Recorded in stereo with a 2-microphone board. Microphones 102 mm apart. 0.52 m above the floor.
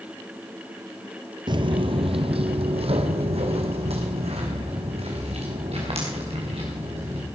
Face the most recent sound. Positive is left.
turn(degrees=-80)